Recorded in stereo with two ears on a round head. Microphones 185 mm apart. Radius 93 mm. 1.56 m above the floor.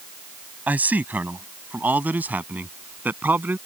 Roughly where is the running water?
No running water in this recording.